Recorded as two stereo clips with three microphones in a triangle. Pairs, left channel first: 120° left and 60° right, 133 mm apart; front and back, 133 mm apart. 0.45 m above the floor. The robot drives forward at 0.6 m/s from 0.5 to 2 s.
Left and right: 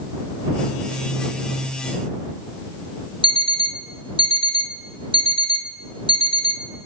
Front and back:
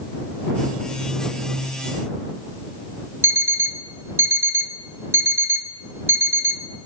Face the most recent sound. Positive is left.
turn(degrees=-110)